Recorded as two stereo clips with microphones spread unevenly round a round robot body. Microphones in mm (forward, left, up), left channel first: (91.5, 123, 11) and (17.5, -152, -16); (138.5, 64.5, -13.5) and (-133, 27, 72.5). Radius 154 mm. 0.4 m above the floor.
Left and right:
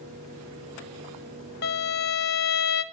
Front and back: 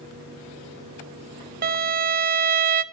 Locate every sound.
1.6 s a violin: 120° left, 0.5 m